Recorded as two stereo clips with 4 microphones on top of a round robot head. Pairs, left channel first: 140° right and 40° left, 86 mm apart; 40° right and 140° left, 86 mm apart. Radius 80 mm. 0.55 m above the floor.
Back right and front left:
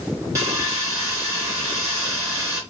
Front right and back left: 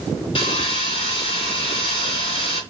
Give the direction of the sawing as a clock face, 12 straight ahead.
1 o'clock.